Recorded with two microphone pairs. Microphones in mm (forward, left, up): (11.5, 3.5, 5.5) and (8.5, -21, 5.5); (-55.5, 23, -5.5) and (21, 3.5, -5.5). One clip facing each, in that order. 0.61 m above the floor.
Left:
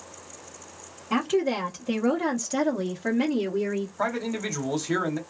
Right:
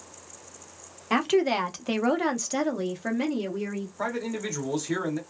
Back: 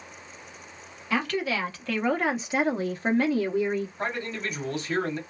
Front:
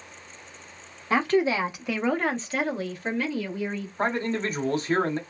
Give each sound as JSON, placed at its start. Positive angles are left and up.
{"t": 1.1, "sound": "a woman speaking", "azimuth_deg": -65, "distance_m": 0.9}
{"t": 4.0, "sound": "a man speaking", "azimuth_deg": 20, "distance_m": 1.0}